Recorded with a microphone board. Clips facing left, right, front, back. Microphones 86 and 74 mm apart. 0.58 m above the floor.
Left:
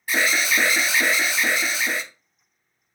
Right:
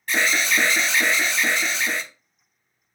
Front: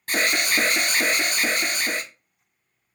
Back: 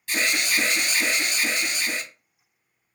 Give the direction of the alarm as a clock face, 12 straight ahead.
12 o'clock.